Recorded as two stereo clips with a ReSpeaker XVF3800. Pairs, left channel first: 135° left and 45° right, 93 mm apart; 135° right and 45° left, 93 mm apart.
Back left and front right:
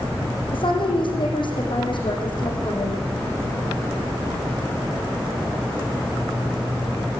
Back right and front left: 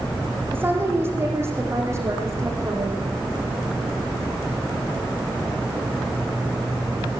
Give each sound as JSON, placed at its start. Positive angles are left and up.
{"t": 0.5, "sound": "a woman speaking", "azimuth_deg": 110, "distance_m": 5.5}